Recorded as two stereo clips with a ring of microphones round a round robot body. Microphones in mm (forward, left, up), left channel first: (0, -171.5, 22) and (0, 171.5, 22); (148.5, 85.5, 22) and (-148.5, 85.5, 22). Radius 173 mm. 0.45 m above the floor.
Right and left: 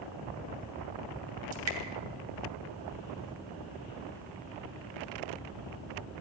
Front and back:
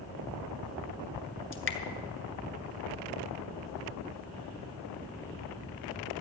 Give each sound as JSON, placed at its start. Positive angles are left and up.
{"t": 1.5, "sound": "dripping", "azimuth_deg": 45, "distance_m": 2.0}